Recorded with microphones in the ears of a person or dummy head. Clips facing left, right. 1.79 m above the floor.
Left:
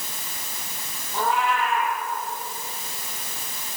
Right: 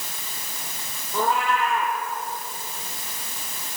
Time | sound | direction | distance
1.1 | a cat meowing | 75° right (ahead or behind) | 8 m